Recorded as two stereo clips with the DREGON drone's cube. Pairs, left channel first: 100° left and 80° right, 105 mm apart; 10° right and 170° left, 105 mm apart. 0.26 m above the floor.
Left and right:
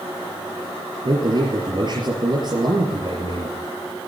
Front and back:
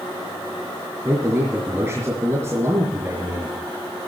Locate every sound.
1.1 s a man speaking: 125° right, 4.5 m